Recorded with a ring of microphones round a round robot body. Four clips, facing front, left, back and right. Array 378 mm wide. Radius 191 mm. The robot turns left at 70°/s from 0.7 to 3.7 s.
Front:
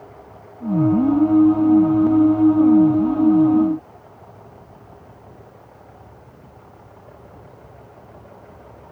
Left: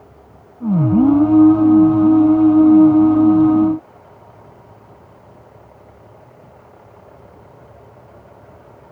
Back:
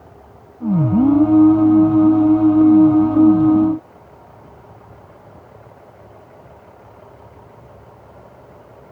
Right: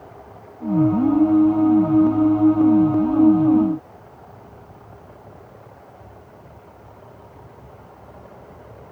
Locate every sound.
Only background noise.